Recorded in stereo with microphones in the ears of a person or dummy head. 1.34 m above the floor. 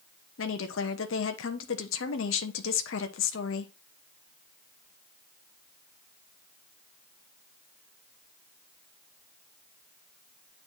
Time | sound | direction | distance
0.4 | a woman speaking | 60° left (ahead or behind) | 1.0 m